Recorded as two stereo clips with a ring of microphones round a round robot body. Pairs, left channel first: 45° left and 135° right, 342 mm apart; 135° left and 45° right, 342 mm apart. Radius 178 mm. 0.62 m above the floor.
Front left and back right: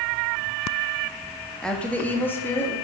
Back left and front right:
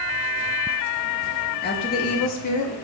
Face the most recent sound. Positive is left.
turn(degrees=125)